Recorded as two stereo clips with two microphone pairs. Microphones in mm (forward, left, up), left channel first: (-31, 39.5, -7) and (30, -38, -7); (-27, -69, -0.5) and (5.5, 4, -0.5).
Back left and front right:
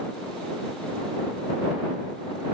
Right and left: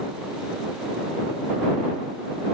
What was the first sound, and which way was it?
Only background noise.